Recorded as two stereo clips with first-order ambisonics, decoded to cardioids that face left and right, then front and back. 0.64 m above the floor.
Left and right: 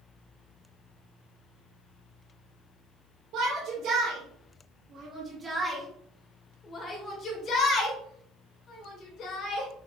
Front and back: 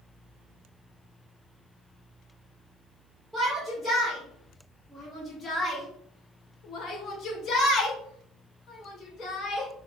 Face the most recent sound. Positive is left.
turn(degrees=60)